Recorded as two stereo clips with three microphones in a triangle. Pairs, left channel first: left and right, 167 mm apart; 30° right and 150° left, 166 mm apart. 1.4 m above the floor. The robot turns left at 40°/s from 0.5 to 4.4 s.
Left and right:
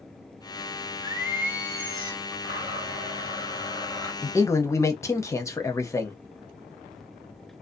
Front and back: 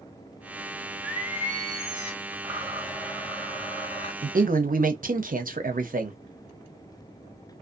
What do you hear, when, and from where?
1.0 s singing: 145° right, 1.0 m; by 2.3 s 165° left, 1.0 m
2.4 s a blender: 85° left, 1.9 m; by 4.1 s 20° left, 1.9 m
4.2 s a man speaking: 165° left, 0.6 m; by 6.2 s 155° left, 0.6 m